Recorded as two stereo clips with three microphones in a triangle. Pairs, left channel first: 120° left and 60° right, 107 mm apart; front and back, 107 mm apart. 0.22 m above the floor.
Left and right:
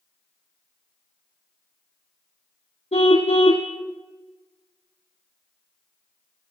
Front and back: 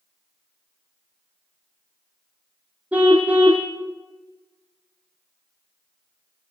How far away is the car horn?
About 4 m.